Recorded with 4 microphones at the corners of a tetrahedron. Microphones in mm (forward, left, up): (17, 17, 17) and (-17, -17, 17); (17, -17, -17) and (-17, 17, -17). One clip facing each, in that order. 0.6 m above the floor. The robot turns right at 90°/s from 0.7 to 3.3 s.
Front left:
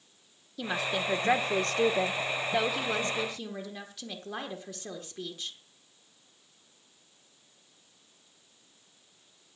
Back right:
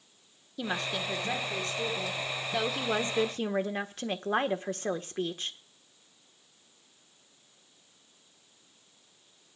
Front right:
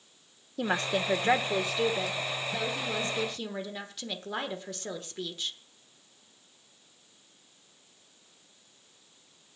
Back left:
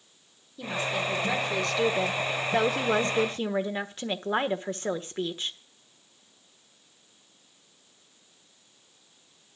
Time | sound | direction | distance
0.6 | a woman speaking | 50° right | 1.5 m